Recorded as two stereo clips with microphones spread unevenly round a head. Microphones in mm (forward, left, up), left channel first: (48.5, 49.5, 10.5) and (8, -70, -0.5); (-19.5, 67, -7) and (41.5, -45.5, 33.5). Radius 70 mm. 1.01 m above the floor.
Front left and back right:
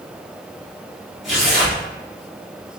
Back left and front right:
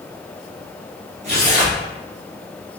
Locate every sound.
1.2 s tearing paper: 20° right, 1.8 m